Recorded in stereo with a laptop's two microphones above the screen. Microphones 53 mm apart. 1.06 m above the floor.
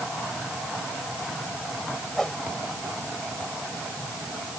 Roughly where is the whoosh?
Centre.